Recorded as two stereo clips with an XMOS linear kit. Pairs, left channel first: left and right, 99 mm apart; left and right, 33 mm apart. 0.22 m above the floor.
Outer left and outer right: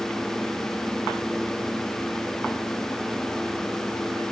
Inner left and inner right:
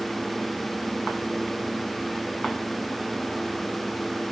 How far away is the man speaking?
I don't hear a man speaking.